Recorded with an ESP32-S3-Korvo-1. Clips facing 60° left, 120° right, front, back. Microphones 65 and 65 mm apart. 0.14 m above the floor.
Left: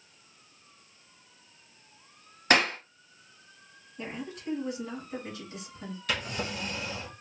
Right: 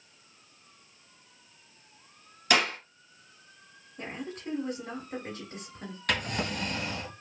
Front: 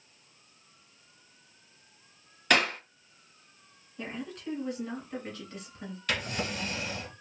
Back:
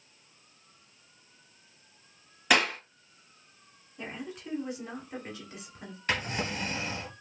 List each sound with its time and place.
2.5 s a clap: 100° left, 1.4 m
4.0 s a woman speaking: 110° right, 1.4 m
6.1 s a drawer: 125° right, 1.5 m